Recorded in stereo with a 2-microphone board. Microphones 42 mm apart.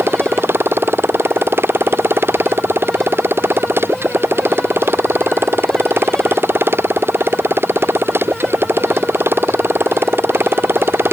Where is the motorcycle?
65° right (ahead or behind).